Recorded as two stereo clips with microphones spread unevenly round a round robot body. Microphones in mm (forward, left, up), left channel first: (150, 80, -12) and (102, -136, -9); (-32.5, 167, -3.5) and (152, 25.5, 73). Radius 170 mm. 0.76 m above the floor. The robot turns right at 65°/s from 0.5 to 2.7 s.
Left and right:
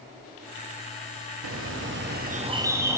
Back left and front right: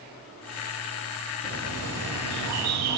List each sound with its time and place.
1.4 s a bird: 105° right, 0.7 m; by 3.0 s 25° right, 0.7 m